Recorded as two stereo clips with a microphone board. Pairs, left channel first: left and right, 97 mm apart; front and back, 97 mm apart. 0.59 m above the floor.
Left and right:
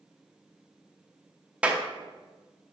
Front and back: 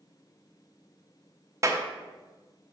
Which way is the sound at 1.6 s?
155° right.